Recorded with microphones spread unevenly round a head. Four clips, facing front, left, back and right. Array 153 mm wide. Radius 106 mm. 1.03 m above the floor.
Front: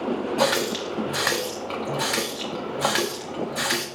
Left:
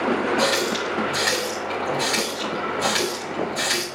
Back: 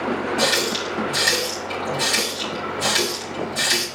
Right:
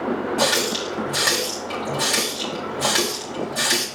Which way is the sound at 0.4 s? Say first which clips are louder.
Left 1 dB, even; 35° right.